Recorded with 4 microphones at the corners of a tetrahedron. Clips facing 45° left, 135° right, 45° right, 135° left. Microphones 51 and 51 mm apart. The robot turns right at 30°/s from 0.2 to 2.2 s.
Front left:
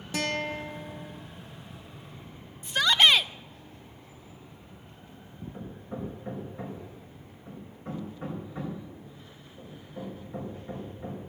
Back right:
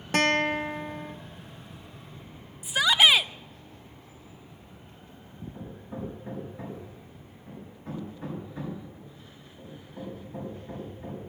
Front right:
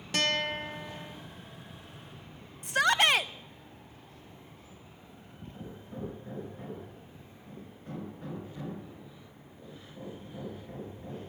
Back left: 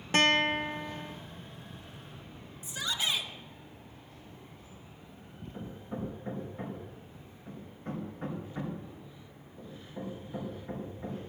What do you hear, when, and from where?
0.1 s a guitar: 170° right, 0.8 m; by 1.1 s 140° right, 0.8 m
2.6 s a shout: 55° right, 0.6 m
5.5 s hammering: 90° left, 4.5 m